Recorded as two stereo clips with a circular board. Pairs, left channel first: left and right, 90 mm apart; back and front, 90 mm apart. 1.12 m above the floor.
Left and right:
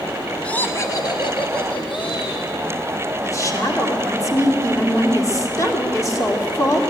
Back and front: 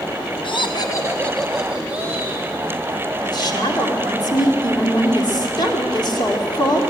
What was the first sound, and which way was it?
Laughter, 165° left.